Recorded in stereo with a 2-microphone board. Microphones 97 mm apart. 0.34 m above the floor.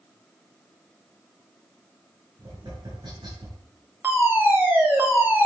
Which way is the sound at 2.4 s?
55° right (ahead or behind).